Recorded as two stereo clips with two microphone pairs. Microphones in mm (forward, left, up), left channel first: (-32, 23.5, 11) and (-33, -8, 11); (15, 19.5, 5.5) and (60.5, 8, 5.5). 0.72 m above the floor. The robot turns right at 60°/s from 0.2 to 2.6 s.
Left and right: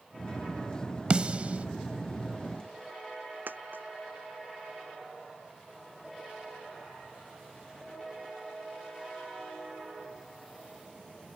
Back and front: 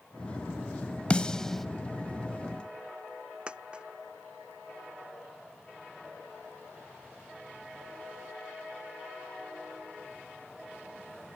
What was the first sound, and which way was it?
A snare drum, 140° right.